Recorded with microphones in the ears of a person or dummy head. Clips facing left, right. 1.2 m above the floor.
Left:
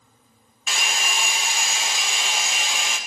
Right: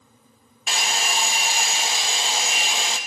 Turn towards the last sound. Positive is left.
turn(degrees=-30)  # may be behind; listen again after turning